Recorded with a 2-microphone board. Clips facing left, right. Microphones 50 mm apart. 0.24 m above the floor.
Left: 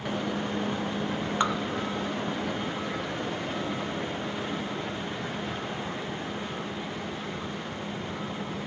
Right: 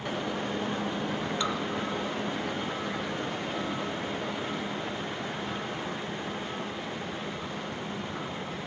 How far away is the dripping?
About 1.1 m.